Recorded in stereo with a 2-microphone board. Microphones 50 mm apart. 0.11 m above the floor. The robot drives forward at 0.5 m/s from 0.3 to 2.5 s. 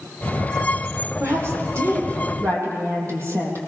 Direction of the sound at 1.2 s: 65° right (ahead or behind).